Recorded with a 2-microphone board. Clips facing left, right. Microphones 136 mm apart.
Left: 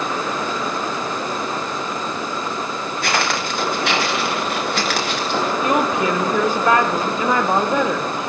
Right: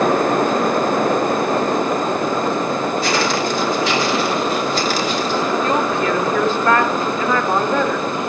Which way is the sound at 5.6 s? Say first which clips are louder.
Even; 15° left (ahead or behind).